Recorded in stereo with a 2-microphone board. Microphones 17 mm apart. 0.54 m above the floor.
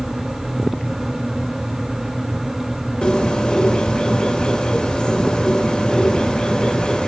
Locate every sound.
3.0 s a bird: 65° left (ahead or behind), 2.5 m